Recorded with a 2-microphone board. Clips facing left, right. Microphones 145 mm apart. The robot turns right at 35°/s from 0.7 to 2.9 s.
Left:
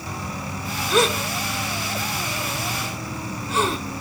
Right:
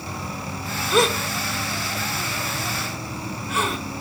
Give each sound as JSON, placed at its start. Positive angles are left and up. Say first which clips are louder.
{"t": 0.9, "sound": "a gasp", "louder": "even", "side_deg": 0, "distance_m": 1.1}